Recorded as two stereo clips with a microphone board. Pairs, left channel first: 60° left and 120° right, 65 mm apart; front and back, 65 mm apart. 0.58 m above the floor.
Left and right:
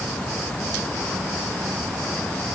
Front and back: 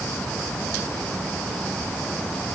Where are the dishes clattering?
I don't hear dishes clattering.